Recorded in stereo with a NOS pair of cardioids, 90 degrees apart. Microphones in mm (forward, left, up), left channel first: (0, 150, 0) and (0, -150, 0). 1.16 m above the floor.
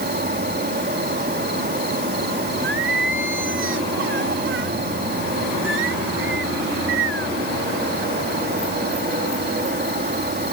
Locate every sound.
0.0 s an insect: 35° right
2.6 s singing: 40° right